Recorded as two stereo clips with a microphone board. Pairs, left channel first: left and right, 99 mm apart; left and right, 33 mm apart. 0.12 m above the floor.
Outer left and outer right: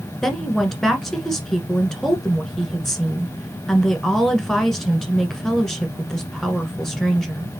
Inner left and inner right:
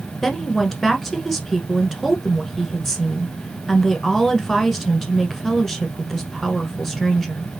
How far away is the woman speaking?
About 1.2 m.